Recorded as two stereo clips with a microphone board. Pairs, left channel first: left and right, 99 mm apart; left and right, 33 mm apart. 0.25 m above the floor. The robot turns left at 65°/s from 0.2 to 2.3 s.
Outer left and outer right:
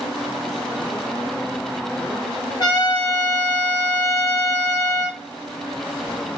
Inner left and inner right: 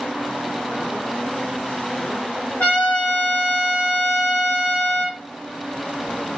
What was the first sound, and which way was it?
A trumpet, 50° left (ahead or behind).